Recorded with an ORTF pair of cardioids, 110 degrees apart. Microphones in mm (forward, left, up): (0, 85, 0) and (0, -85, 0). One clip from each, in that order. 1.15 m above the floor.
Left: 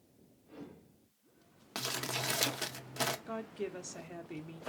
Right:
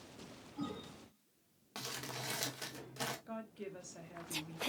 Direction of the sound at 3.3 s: 35° left.